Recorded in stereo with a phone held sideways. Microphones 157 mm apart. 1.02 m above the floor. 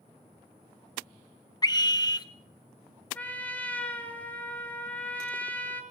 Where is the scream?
25° left (ahead or behind), 0.7 m.